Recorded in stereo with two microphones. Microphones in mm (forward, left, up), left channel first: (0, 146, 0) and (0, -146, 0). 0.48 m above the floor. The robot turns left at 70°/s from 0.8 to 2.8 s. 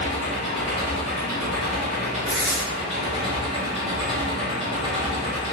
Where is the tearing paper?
45° right (ahead or behind), 0.6 m; by 2.6 s 20° right (ahead or behind), 0.6 m.